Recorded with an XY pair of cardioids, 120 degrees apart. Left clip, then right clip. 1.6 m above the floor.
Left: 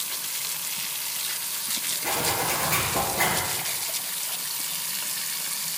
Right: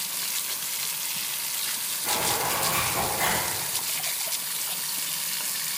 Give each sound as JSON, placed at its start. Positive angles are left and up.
{"t": 2.0, "sound": "a zipper", "azimuth_deg": 50, "distance_m": 3.5}